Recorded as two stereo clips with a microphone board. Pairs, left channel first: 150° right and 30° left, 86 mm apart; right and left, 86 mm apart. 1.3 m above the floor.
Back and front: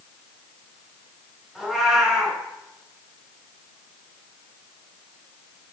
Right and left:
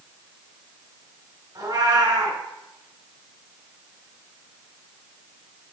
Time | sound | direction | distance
1.6 | a cat meowing | 115° left | 2.5 m